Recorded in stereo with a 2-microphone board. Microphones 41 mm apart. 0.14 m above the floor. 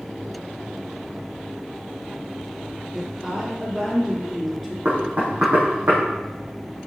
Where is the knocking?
40° right (ahead or behind), 4.5 m.